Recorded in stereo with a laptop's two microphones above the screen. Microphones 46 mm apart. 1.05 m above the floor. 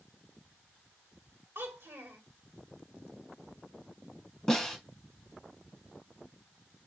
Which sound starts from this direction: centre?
A snare drum, at 4.5 s.